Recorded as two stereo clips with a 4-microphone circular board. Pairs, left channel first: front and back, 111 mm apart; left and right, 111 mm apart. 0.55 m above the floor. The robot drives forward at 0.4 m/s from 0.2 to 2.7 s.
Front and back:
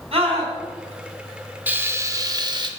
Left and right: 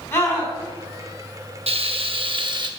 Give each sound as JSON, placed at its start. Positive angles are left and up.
{"t": 0.1, "sound": "a scream", "azimuth_deg": 155, "distance_m": 4.5}
{"t": 1.7, "sound": "frying", "azimuth_deg": -105, "distance_m": 0.7}